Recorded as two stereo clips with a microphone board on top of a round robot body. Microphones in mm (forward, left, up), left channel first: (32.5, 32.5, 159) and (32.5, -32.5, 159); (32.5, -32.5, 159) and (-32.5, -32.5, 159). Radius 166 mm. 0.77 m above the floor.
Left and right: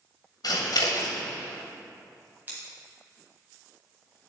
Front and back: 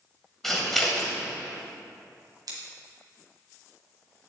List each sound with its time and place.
0.4 s scissors: 85° left, 1.8 m
2.5 s scissors: 155° right, 1.5 m